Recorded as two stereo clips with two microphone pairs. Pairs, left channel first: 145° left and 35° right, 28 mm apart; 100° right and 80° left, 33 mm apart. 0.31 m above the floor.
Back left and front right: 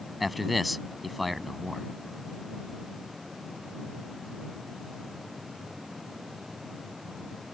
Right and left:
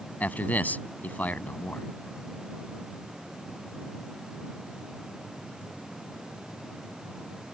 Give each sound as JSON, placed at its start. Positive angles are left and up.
{"t": 0.2, "sound": "a man speaking", "azimuth_deg": -120}